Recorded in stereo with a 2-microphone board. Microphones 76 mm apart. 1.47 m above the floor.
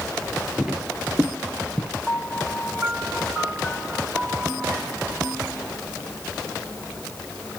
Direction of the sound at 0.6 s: 15° right (ahead or behind).